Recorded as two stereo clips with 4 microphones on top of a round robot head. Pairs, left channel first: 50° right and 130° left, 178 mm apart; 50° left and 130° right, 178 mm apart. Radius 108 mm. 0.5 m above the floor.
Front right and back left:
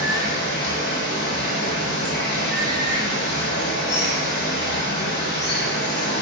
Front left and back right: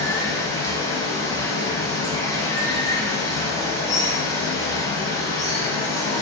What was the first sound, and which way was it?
Running water, 20° right.